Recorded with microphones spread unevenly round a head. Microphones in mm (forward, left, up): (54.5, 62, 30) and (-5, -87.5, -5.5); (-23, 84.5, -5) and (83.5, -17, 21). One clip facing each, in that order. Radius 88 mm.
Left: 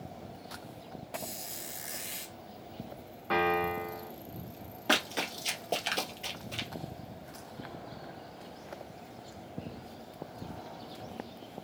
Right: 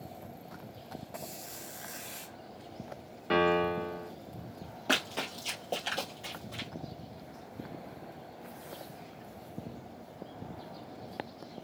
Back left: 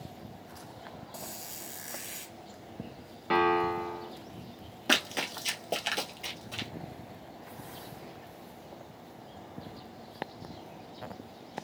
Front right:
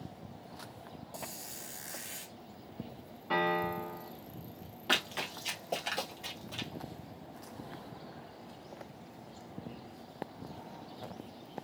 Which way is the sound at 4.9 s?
135° left.